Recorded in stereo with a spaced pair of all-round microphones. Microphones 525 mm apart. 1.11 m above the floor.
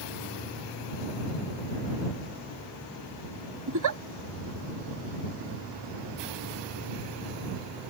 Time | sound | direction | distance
3.7 | a giggle | 35° right (ahead or behind) | ?